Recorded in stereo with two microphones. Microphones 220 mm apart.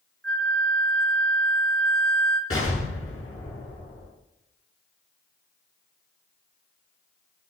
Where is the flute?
60° right (ahead or behind), 2.5 m.